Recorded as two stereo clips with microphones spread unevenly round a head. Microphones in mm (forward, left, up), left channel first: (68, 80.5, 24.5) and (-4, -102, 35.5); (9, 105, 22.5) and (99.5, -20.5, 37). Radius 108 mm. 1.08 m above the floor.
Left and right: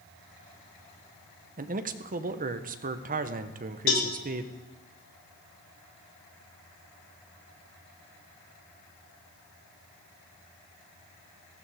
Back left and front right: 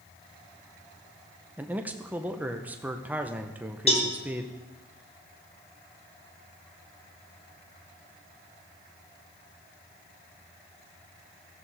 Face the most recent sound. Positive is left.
turn(degrees=80)